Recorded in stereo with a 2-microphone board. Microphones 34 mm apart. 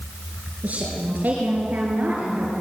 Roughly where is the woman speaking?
Right.